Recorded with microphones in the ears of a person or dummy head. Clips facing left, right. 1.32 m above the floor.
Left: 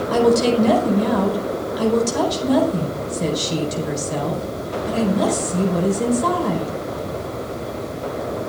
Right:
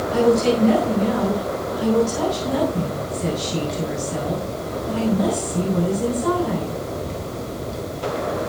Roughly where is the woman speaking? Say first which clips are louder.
Left 1 dB; left.